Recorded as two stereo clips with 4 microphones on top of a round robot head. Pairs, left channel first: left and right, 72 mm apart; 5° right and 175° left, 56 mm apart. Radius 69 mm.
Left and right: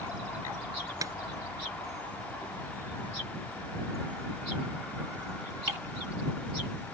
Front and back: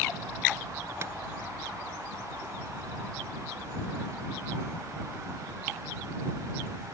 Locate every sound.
1.0 s tapping: 135° right